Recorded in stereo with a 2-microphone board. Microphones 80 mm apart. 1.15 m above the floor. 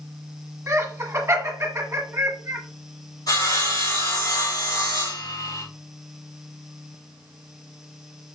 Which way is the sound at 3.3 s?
55° left (ahead or behind).